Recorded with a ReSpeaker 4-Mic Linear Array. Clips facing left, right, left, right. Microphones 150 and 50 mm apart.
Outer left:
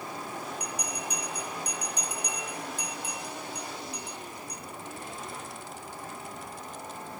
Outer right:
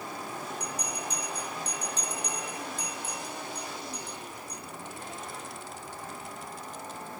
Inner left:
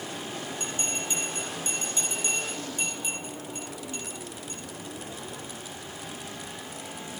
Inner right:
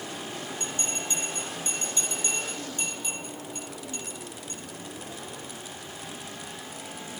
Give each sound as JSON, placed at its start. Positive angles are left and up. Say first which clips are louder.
{"t": 0.6, "sound": "a bell", "louder": "even, inner left 1 dB", "side_deg": 15, "distance_m": 5.5}